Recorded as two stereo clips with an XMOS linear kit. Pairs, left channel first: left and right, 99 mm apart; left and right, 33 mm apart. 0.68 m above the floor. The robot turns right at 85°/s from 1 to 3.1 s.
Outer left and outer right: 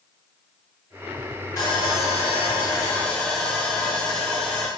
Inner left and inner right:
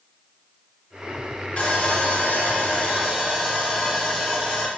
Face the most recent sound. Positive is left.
turn(degrees=170)